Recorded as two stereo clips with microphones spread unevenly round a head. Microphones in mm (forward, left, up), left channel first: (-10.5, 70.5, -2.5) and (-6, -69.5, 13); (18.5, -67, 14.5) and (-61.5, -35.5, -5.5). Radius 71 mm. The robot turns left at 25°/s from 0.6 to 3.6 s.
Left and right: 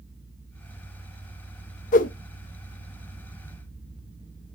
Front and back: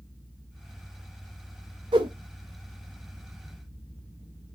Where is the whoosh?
120° left, 0.6 m; by 2.1 s 115° left, 0.6 m.